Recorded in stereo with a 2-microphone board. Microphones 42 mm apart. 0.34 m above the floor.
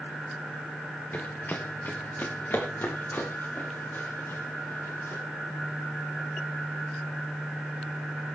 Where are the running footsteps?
40° left (ahead or behind), 2.5 m; by 5.2 s 60° left (ahead or behind), 8 m.